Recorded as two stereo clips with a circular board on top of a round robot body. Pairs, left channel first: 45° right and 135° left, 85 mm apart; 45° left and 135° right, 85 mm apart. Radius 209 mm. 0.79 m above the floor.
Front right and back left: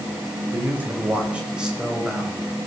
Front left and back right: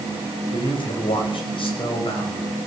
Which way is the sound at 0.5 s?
70° left.